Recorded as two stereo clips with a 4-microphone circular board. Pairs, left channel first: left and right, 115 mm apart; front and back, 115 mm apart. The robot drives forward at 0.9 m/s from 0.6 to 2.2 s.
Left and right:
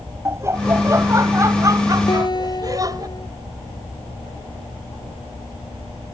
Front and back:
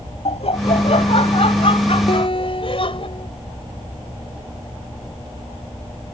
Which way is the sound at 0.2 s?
25° right.